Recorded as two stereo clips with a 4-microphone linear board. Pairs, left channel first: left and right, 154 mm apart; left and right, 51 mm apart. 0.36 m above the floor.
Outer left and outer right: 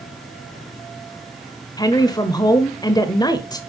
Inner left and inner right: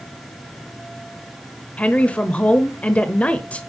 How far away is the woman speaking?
About 1.1 m.